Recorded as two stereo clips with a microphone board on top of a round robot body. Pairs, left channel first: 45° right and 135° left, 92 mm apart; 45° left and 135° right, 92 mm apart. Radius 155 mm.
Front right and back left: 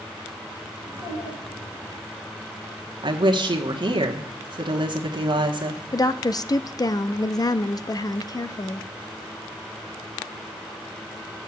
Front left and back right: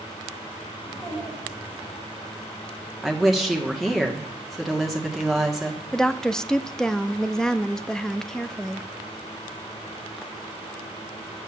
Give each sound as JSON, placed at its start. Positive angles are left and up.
{"t": 0.8, "sound": "a child speaking", "azimuth_deg": -60, "distance_m": 7.5}
{"t": 3.0, "sound": "a woman speaking", "azimuth_deg": 135, "distance_m": 1.4}
{"t": 5.9, "sound": "a woman speaking", "azimuth_deg": -35, "distance_m": 0.8}